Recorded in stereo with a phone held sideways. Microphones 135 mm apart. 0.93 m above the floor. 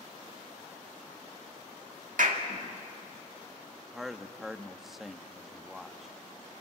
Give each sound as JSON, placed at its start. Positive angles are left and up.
{"t": 2.2, "sound": "a clap", "side_deg": -75, "distance_m": 1.8}
{"t": 3.9, "sound": "a man speaking", "side_deg": 0, "distance_m": 1.0}